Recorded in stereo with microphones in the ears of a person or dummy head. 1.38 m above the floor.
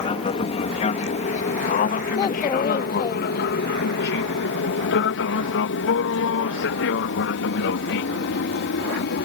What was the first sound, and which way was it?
An aircraft, 30° left (ahead or behind).